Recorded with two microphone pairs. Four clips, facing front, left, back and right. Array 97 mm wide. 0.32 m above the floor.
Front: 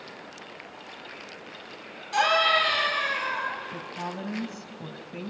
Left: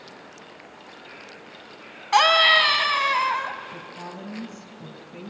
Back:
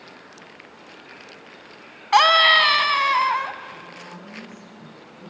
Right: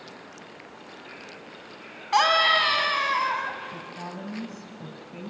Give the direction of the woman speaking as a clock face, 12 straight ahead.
12 o'clock.